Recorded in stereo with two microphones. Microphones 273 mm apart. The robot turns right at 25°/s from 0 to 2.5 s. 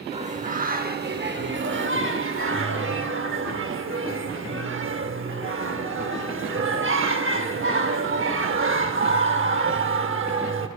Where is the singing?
150° right, 0.7 m; by 10.7 s 90° right, 0.7 m.